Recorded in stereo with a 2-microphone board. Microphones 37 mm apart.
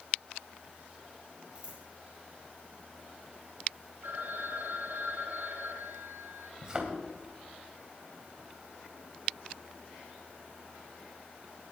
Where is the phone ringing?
80° right, 3.5 m.